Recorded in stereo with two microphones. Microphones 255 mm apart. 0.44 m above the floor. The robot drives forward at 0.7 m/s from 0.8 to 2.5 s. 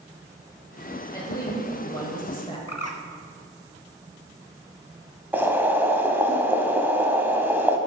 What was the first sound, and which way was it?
A woman speaking, 15° left (ahead or behind).